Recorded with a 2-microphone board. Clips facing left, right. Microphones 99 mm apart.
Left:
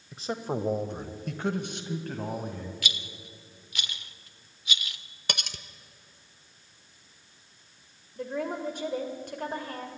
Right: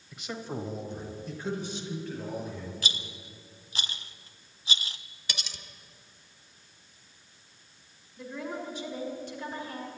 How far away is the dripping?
I don't hear dripping.